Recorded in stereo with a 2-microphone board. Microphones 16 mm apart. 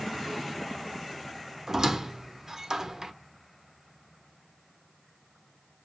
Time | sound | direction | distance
1.7 | a squeak | 25° right (ahead or behind) | 0.6 m